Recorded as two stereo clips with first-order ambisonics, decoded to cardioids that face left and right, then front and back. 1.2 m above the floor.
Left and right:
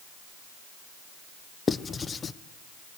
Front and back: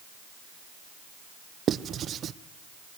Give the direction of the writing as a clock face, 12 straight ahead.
7 o'clock.